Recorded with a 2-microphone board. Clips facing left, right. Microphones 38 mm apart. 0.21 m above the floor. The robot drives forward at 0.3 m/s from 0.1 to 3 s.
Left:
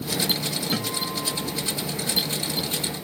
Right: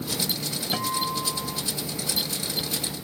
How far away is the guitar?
About 2.5 m.